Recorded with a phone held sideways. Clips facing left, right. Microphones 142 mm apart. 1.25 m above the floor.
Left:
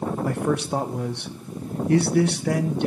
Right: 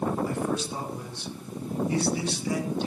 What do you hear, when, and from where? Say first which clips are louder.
0.2 s a man speaking: left 5 dB; 65° left (ahead or behind), 1.0 m